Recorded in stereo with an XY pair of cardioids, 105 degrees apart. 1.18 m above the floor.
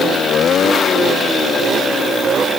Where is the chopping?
No chopping in this recording.